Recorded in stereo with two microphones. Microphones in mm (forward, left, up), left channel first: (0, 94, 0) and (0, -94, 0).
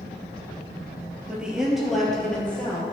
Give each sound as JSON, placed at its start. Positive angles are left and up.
{"t": 1.3, "sound": "a woman speaking", "side_deg": -5, "distance_m": 2.5}